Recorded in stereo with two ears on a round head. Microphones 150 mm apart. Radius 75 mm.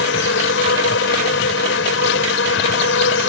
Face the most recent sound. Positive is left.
turn(degrees=90)